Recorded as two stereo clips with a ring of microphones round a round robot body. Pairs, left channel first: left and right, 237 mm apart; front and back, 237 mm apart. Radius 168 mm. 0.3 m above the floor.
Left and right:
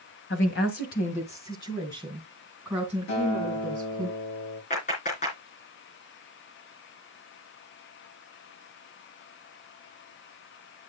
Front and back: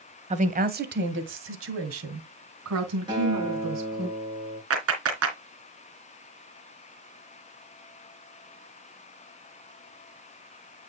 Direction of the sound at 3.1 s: 110° left.